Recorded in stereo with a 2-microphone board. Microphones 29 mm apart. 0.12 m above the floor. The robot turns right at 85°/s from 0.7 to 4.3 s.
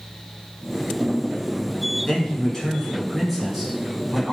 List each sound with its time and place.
2.1 s a man speaking: 20° left (ahead or behind), 1.1 m; by 4.3 s 20° right (ahead or behind), 1.1 m